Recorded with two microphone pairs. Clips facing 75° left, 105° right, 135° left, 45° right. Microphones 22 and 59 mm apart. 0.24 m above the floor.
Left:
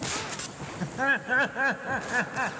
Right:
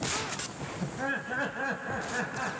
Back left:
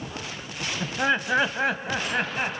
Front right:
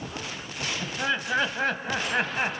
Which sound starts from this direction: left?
Laughter, at 0.8 s.